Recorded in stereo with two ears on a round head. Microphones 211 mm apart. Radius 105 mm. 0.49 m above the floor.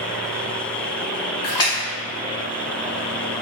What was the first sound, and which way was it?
A splash, 20° left (ahead or behind).